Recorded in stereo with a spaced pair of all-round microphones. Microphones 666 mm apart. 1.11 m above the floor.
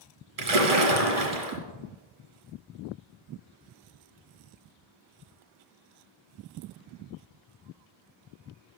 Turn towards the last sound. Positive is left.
turn(degrees=-60)  # may be behind; listen again after turning